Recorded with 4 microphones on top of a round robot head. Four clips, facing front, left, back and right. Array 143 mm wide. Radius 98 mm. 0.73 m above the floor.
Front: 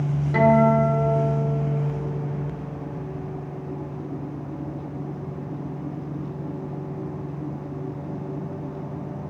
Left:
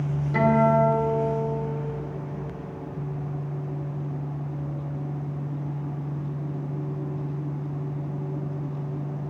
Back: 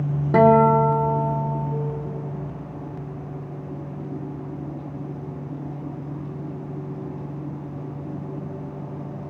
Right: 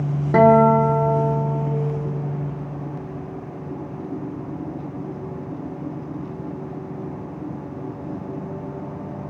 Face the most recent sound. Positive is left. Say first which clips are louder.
# right 7 dB, back 3 dB
turn(degrees=-130)